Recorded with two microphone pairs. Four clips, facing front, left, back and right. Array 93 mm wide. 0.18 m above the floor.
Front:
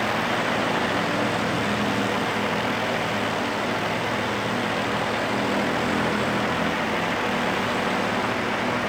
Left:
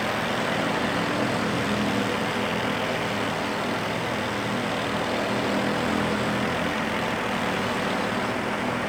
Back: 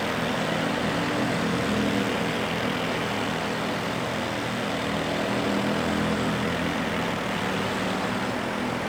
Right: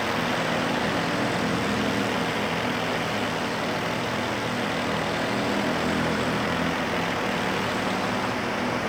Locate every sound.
Only background noise.